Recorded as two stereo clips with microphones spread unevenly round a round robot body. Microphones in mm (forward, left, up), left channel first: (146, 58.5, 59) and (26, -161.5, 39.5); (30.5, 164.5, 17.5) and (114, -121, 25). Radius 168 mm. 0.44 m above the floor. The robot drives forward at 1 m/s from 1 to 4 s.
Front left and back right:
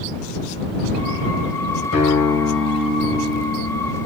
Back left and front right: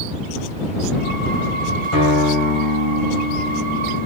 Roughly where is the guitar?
Left.